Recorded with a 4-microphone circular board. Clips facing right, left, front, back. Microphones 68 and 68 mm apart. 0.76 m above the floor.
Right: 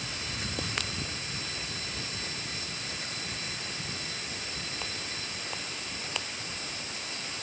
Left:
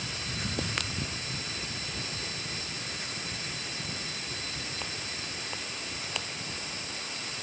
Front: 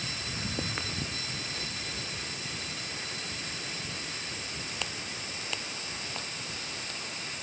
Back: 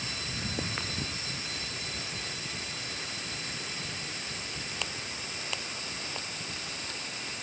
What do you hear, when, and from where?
Only background noise.